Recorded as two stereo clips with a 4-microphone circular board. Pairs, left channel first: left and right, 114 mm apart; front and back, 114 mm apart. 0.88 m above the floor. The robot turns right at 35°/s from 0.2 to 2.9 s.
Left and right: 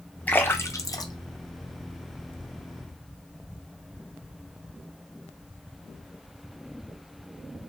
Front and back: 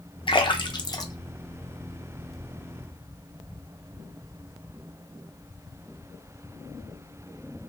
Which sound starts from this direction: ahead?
A splash, at 0.3 s.